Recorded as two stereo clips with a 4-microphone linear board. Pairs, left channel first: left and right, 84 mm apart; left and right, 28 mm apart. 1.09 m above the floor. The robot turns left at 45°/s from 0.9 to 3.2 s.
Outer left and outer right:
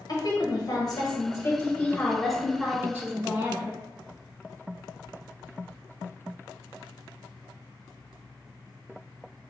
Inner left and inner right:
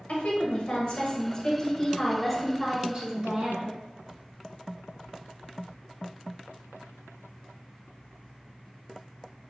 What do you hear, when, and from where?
0.1 s a woman speaking: 65° left, 1.1 m; by 3.8 s 40° right, 1.1 m